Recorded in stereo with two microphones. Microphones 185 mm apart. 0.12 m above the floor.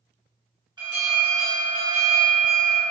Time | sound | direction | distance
0.8 | an alarm | 25° right (ahead or behind) | 1.5 m